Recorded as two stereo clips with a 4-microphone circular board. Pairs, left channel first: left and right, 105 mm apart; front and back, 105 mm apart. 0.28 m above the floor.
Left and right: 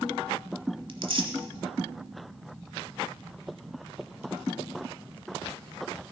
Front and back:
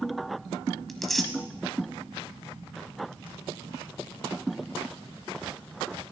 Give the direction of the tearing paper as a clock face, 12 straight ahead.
3 o'clock.